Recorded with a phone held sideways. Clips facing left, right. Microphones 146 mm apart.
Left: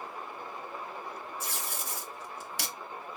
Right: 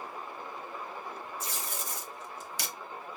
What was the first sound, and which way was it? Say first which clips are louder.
Tape being pulled: even; 65° left (ahead or behind).